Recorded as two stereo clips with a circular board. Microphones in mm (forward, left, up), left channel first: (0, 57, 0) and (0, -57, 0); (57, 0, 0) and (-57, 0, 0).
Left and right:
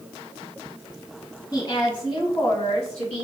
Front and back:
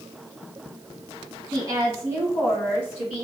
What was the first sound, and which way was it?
A woman speaking, 135° left.